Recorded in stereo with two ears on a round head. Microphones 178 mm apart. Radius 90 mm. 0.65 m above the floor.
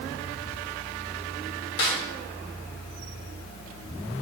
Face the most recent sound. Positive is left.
turn(degrees=60)  # may be behind; listen again after turning